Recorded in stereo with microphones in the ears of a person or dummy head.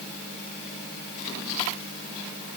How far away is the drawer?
No drawer in this recording.